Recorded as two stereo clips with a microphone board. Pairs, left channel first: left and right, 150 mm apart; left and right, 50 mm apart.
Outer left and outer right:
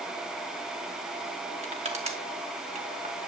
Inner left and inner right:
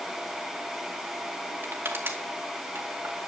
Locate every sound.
1.6 s crushing: 45° right (ahead or behind), 2 m